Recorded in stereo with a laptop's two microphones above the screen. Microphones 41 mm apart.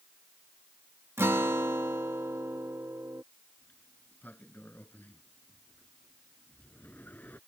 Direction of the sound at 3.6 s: 45° left (ahead or behind).